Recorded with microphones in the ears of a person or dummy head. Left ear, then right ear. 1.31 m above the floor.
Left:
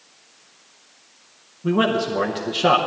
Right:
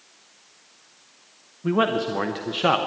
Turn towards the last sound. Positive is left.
turn(degrees=-15)  # may be behind; listen again after turning